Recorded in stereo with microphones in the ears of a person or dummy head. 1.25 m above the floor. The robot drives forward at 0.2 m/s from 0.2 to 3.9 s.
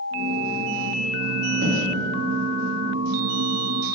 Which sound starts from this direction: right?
Knocking, at 1.6 s.